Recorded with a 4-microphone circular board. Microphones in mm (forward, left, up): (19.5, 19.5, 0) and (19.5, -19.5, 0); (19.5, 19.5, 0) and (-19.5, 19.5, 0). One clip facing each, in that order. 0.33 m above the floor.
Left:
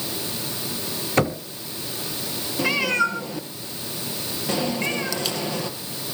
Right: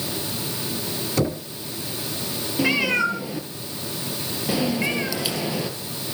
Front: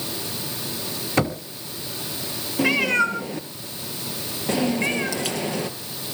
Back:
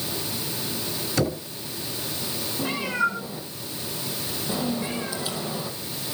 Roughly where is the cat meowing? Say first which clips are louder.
Right 1 dB, front 6 dB; ahead.